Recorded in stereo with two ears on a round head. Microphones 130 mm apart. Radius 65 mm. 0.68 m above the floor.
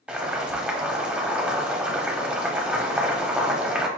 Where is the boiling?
10° right (ahead or behind), 0.7 m.